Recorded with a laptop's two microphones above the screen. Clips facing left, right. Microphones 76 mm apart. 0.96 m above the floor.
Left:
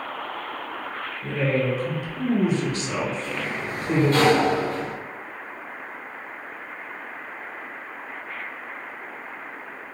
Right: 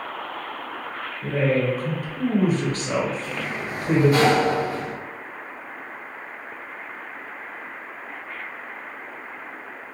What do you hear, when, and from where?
1.2 s a woman speaking: 40° right (ahead or behind), 0.7 m
3.2 s a sliding door: 10° right (ahead or behind), 0.8 m